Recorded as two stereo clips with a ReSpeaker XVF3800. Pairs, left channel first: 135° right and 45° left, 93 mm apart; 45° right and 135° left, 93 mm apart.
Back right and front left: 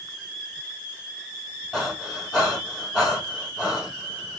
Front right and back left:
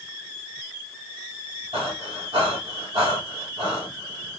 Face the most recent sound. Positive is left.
turn(degrees=135)